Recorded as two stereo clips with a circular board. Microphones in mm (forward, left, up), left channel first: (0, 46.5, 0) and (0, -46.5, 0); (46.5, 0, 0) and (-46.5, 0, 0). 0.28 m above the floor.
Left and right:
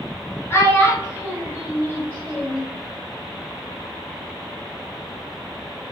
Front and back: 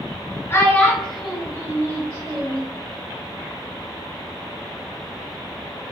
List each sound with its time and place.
0.5 s a child speaking: 45° left, 0.8 m; by 2.7 s 160° left, 1.0 m